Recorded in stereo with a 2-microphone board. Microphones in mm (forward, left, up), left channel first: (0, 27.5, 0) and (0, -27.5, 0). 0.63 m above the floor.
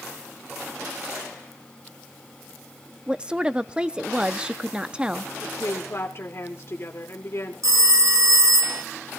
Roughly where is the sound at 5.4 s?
Left.